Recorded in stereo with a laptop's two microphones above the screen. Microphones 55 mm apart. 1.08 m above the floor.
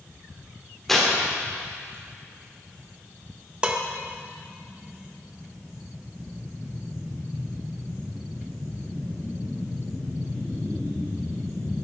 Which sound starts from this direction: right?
Dishes clattering, at 3.6 s.